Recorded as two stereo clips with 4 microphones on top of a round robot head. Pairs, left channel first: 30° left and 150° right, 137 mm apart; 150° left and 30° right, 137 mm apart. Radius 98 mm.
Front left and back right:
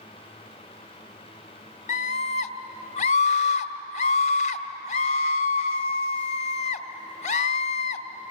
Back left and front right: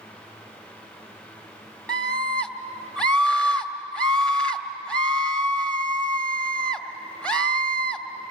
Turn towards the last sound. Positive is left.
turn(degrees=65)